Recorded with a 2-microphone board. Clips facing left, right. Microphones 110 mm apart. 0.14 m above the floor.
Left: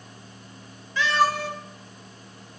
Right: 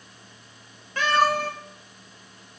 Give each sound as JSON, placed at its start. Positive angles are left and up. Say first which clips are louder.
{"t": 1.0, "sound": "a cat meowing", "louder": "right 1 dB", "side_deg": -55, "distance_m": 0.8}